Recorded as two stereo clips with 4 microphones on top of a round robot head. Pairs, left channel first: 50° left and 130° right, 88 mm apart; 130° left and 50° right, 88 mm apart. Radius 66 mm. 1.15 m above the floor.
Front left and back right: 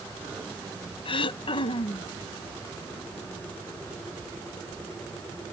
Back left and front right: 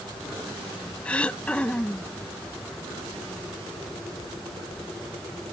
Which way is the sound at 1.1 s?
50° left.